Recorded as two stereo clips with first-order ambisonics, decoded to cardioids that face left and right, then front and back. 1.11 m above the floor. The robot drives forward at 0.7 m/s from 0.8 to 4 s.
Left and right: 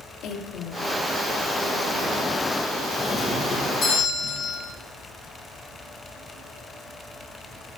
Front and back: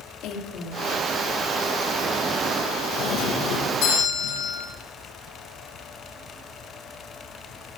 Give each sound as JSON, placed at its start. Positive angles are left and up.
{"t": 0.2, "sound": "a woman speaking", "azimuth_deg": 40, "distance_m": 2.0}
{"t": 3.0, "sound": "a doorbell", "azimuth_deg": 30, "distance_m": 5.5}